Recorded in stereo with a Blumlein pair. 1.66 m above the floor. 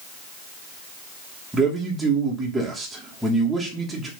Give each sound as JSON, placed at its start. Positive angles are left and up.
{"t": 1.5, "sound": "a man speaking", "azimuth_deg": -5, "distance_m": 2.5}